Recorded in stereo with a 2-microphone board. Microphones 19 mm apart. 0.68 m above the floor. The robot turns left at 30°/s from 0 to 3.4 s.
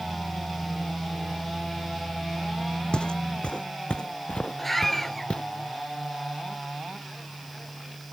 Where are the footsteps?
50° left (ahead or behind); by 5.4 s 60° left (ahead or behind).